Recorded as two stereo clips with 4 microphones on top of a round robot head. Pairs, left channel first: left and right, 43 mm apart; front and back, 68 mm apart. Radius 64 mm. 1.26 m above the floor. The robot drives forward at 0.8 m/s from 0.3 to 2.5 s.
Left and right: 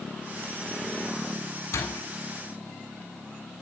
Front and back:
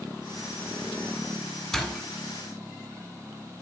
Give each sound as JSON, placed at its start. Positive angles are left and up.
{"t": 1.7, "sound": "a door slam", "azimuth_deg": 80, "distance_m": 8.0}